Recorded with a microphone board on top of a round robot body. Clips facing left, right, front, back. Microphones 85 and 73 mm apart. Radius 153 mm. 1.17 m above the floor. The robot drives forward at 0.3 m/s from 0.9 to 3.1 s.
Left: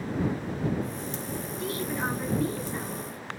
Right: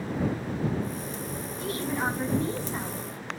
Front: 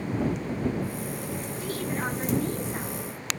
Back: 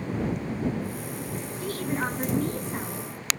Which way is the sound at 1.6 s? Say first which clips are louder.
Right 2 dB, back 2 dB; 140° right.